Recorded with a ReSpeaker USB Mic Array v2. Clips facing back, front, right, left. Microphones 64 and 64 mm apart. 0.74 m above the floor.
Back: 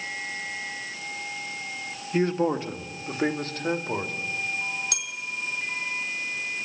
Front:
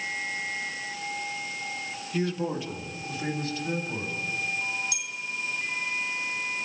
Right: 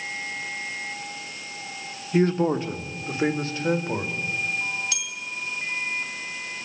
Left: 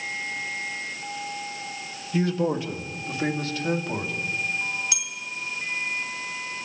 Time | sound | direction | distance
2.1 | a man speaking | 135° right | 1.8 m
4.9 | a bell | 170° left | 2.5 m